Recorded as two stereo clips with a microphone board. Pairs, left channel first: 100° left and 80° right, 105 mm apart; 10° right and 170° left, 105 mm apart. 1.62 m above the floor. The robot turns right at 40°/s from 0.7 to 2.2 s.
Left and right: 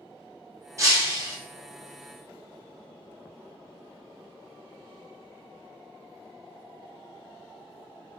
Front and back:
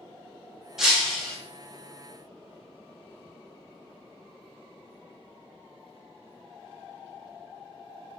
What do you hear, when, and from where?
0.8 s breaking glass: 105° right, 0.8 m; by 1.4 s 85° right, 0.8 m